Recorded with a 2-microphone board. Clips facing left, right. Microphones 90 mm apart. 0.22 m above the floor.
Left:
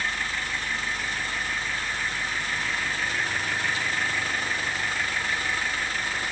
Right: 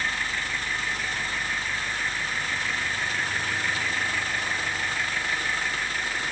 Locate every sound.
Only background noise.